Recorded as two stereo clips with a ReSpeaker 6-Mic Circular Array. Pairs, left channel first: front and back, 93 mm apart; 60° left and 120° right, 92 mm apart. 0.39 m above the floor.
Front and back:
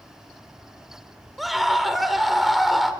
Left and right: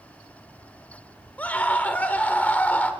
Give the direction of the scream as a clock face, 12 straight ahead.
9 o'clock.